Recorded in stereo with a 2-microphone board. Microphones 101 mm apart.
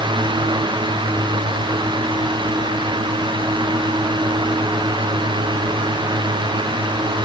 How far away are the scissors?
I don't hear scissors.